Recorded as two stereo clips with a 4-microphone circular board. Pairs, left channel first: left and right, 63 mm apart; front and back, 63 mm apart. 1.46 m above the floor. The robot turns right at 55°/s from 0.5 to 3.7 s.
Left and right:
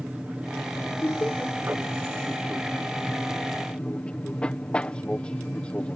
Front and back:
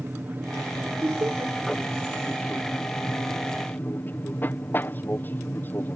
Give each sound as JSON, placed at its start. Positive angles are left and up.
{"t": 0.0, "sound": "an aircraft", "azimuth_deg": -145}
{"t": 1.0, "sound": "laughter", "azimuth_deg": 140}